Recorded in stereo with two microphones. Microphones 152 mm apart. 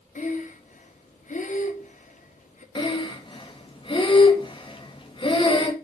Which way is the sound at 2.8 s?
35° left (ahead or behind).